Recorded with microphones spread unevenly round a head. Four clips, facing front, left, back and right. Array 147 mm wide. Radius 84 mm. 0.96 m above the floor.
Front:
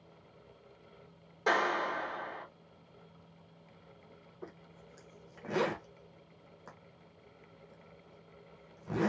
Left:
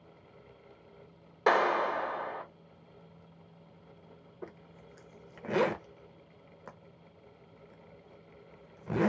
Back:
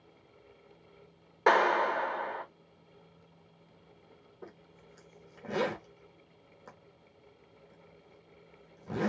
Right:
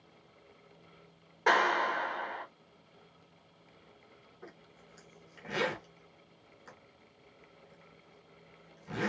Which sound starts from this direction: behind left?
A clap, at 1.5 s.